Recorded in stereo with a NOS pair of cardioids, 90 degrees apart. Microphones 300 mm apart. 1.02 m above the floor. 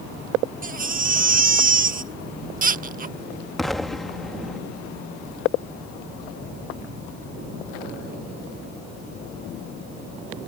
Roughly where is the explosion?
Ahead.